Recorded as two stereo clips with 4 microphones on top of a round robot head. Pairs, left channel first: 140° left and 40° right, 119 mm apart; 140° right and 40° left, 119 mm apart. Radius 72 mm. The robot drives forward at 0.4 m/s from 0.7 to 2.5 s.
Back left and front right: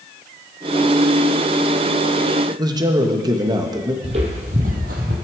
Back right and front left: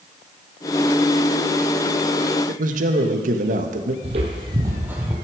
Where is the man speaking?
20° left, 1.3 m.